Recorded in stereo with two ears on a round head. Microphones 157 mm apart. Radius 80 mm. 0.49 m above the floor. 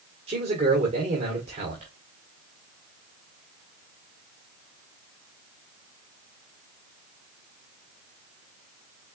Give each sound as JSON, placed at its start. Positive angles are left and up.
{"t": 0.3, "sound": "a man speaking", "side_deg": -40, "distance_m": 1.8}